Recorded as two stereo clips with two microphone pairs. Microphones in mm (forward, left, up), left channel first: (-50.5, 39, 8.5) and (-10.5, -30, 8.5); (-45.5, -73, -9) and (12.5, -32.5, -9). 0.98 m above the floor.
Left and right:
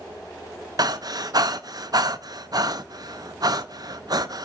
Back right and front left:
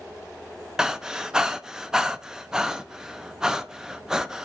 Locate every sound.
0.8 s breathing: 50° right, 0.6 m